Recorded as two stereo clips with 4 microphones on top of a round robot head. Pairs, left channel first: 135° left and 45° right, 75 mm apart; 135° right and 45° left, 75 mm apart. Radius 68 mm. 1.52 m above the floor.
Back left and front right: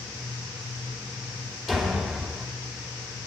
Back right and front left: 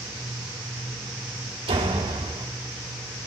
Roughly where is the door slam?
Ahead left.